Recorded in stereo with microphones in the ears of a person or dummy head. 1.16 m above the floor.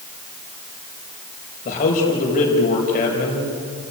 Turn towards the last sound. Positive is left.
turn(degrees=40)  # may be behind; listen again after turning